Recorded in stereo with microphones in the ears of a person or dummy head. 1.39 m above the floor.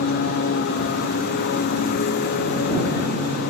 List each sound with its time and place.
0.0 s a lawn mower: 55° left (ahead or behind)